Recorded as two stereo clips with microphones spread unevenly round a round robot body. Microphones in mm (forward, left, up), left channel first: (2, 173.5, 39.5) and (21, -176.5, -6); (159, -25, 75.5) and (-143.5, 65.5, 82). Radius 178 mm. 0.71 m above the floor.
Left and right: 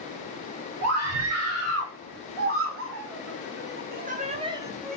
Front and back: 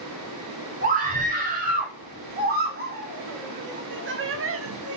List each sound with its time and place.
0.8 s a scream: 130° right, 3.5 m; by 5.0 s 175° right, 0.8 m